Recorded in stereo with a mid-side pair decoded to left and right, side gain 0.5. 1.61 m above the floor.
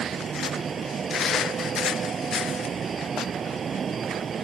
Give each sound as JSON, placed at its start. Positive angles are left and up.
{"t": 0.0, "sound": "a fan", "azimuth_deg": -40}